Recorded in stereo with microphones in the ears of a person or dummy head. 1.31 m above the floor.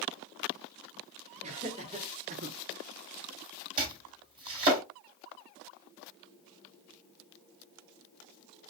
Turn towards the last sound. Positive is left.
turn(degrees=-25)  # may be behind; listen again after turning